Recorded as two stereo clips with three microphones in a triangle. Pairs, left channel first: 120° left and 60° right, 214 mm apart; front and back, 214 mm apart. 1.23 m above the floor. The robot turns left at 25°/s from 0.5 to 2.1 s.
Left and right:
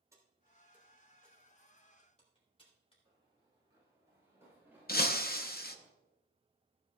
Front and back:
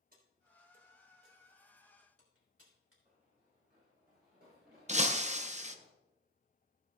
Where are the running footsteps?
125° right, 5 m; by 5.9 s 145° right, 9 m.